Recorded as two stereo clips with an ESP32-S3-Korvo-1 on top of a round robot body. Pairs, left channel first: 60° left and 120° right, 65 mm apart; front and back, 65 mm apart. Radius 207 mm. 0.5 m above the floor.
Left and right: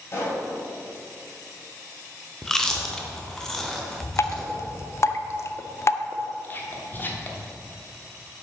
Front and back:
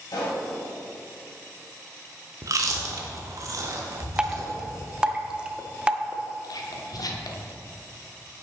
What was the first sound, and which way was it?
A pop, 15° left.